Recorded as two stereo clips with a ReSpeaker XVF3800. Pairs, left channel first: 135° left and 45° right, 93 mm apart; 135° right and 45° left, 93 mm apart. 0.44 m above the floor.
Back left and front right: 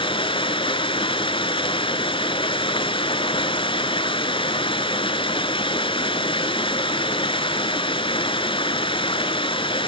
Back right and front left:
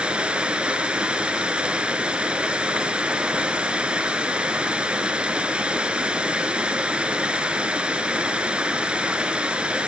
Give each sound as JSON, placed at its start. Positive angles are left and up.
{"t": 0.0, "sound": "running water", "azimuth_deg": 125, "distance_m": 1.1}